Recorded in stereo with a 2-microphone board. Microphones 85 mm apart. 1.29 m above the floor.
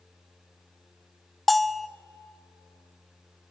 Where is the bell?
Centre (ahead or behind), 0.6 m.